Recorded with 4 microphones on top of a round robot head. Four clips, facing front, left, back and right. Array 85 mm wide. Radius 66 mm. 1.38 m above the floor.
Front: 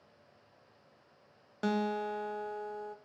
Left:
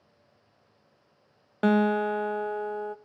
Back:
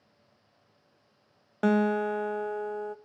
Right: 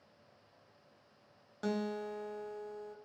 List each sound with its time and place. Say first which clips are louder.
1.6 s a guitar: left 14 dB, back 8 dB; 125° left, 0.9 m